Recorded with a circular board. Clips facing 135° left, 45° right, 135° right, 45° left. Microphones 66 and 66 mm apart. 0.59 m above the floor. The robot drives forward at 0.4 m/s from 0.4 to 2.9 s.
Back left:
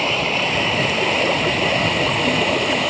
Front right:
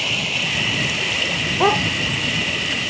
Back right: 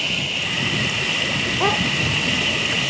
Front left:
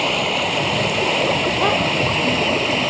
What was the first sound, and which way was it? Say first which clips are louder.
Running water: back left 5 dB, front left 7 dB; 80° left.